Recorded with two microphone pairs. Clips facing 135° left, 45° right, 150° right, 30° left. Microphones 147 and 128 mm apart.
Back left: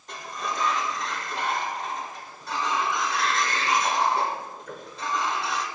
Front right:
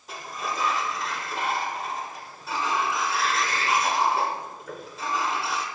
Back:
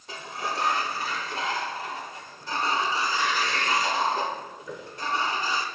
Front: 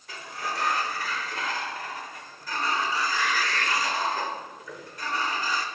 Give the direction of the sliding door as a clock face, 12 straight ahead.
4 o'clock.